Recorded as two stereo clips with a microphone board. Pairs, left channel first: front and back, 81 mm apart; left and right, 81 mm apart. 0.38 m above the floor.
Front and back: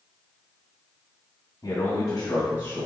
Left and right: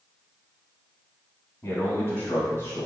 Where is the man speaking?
35° left, 2 m; by 2.9 s 55° left, 1.7 m.